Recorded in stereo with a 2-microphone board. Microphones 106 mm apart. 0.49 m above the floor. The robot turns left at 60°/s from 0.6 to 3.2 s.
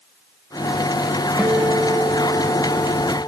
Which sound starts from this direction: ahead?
A guitar, at 1.4 s.